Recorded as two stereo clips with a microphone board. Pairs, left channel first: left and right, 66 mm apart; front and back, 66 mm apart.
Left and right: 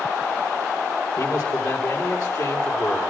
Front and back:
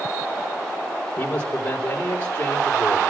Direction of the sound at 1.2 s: 65° left.